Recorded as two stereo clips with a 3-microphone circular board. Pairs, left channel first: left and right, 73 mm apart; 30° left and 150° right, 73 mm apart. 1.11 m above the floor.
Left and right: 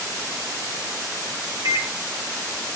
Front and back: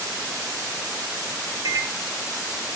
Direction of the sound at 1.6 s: 120° right.